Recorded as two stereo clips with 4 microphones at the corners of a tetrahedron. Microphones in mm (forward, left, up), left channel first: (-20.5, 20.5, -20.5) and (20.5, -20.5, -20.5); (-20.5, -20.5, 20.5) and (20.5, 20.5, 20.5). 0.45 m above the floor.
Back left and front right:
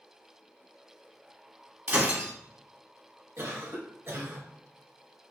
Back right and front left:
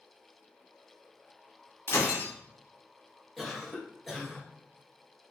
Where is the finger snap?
I don't hear a finger snap.